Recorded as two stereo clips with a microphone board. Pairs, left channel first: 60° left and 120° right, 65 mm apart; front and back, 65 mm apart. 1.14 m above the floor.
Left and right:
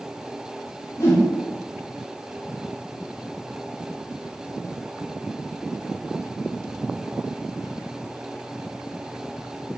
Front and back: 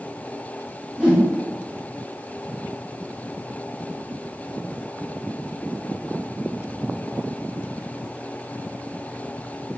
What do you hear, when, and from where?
1.0 s a whoosh: 105° left, 3.5 m